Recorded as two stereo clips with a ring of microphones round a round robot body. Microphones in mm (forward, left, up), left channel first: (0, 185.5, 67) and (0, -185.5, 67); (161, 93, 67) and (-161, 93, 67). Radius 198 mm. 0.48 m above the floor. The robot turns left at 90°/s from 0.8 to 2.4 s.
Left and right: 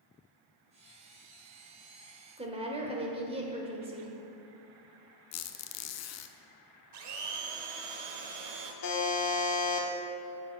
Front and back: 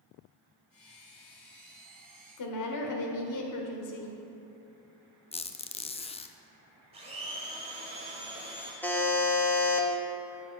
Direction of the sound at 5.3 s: 65° left.